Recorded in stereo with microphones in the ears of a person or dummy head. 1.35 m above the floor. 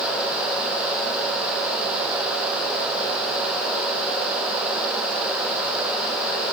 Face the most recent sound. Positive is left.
No sound to turn to.